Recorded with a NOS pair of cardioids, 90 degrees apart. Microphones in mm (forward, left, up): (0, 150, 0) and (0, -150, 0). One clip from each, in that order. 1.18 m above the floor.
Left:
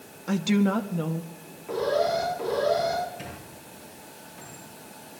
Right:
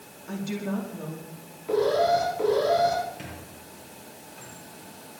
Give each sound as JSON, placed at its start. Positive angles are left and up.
{"t": 0.3, "sound": "a woman speaking", "azimuth_deg": 60, "distance_m": 1.7}
{"t": 1.7, "sound": "an alarm", "azimuth_deg": -15, "distance_m": 8.5}
{"t": 3.2, "sound": "a squeak", "azimuth_deg": 0, "distance_m": 9.0}